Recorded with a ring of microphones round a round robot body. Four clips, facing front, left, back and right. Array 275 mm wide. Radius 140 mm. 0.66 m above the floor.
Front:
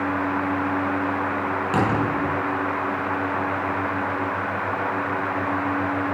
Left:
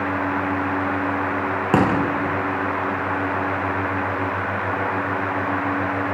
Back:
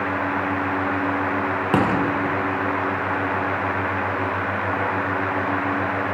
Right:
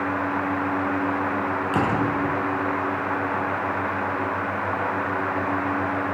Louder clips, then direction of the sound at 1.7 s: Left 5 dB, back 2 dB; 120° left.